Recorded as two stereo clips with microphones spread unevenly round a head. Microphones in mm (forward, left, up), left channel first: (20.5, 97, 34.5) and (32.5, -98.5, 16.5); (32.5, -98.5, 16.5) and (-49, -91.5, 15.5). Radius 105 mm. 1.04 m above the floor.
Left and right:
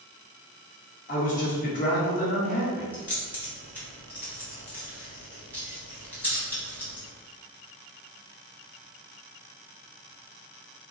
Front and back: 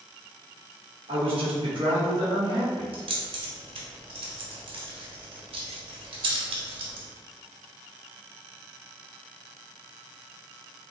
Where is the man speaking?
150° left, 1.3 m.